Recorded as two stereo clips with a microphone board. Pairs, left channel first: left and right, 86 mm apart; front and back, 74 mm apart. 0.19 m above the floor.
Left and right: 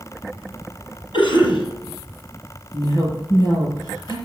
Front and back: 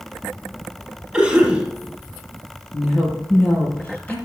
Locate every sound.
1.1 s a cough: 95° left, 5 m
2.7 s a woman speaking: 65° left, 5 m